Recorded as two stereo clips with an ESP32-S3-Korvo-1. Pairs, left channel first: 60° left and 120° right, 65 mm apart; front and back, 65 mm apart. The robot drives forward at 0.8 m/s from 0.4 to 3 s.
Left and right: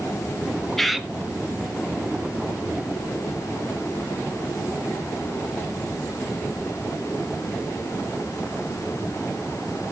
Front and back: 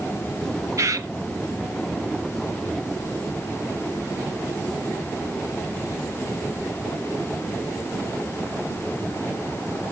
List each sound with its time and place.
0.8 s a bird: 145° left, 0.5 m; by 1.1 s 155° left, 0.8 m